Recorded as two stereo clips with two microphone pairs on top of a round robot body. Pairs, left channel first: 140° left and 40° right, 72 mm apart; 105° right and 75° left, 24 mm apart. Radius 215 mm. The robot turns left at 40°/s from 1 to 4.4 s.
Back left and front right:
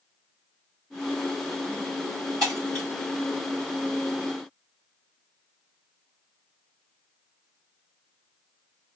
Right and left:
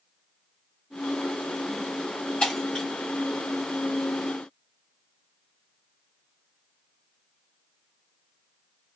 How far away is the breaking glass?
About 0.7 m.